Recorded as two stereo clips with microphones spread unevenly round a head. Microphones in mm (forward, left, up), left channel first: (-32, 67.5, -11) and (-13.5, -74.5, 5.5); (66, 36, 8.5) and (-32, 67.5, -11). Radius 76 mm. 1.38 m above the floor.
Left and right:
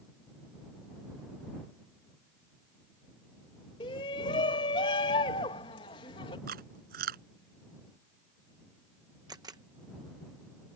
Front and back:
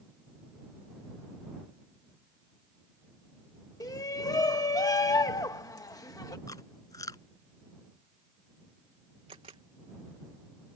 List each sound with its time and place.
3.8 s a shout: 40° left
6.5 s chewing: 80° right
9.3 s a camera shutter: 145° right